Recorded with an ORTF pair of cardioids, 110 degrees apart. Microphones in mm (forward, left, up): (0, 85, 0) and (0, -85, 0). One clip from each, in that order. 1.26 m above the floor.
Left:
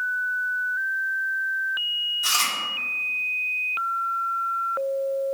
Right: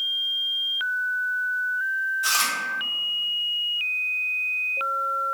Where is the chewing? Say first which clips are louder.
Even; straight ahead, 1.0 m.